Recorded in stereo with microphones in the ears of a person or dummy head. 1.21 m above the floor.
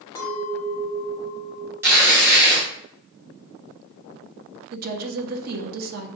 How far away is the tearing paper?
About 1.3 m.